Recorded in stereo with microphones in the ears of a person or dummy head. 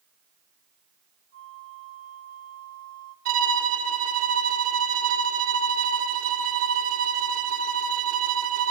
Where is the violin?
55° right (ahead or behind), 3 m.